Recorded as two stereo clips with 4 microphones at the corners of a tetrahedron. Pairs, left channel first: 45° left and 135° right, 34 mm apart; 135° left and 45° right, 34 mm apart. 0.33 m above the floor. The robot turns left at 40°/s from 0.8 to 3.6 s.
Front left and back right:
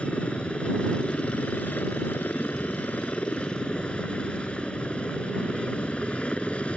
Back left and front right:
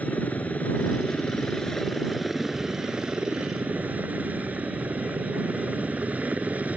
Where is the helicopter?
100° left; by 6.8 s 5° right.